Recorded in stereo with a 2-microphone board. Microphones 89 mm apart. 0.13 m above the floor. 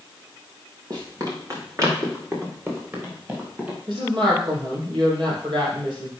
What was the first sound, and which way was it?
Running footsteps, 45° right (ahead or behind).